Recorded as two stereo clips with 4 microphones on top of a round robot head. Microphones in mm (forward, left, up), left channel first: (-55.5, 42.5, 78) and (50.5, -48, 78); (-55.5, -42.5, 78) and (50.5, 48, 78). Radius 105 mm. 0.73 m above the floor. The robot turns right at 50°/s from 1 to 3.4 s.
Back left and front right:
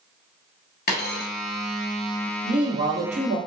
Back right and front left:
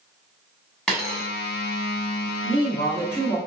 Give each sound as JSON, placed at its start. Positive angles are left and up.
{"t": 0.9, "sound": "a dropped coin", "azimuth_deg": 135, "distance_m": 0.8}
{"t": 2.4, "sound": "a man speaking", "azimuth_deg": -100, "distance_m": 1.7}